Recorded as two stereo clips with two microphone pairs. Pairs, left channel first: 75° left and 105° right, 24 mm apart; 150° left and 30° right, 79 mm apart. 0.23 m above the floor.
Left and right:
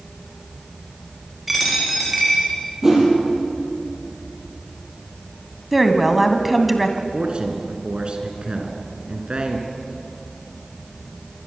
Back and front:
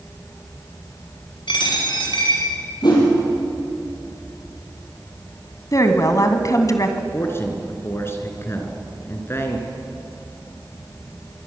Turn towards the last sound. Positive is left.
turn(degrees=-150)